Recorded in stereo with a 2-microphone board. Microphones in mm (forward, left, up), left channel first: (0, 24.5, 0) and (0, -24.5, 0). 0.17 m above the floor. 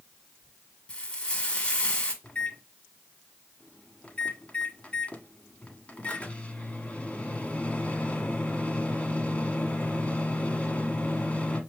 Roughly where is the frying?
Left.